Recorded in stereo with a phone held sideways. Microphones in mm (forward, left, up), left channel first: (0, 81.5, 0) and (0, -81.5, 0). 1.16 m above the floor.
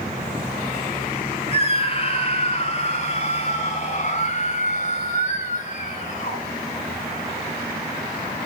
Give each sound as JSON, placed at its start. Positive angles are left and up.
{"t": 1.5, "sound": "a scream", "side_deg": 35, "distance_m": 3.0}